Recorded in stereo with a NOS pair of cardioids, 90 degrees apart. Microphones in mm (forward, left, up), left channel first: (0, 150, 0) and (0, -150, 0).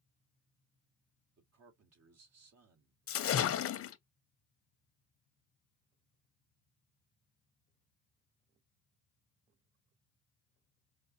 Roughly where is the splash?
Ahead left.